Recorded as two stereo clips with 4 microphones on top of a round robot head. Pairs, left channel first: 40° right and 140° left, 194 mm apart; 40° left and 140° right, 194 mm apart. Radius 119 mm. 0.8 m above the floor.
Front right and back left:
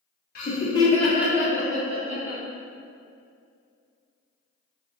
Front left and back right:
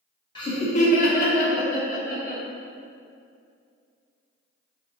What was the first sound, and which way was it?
Laughter, 20° right.